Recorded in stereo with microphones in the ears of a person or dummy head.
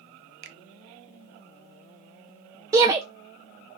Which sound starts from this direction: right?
A finger snap, at 0.4 s.